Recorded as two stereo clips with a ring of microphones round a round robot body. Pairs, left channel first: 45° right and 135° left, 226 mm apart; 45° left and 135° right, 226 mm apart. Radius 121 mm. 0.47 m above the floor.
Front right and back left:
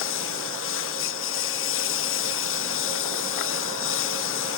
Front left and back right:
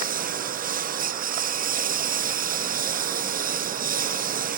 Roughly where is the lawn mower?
Right.